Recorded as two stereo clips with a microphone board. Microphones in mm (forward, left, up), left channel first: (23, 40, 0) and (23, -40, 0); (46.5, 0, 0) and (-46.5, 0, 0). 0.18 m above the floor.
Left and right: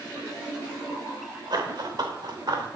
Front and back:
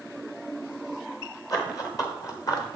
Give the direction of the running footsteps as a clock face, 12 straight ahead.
2 o'clock.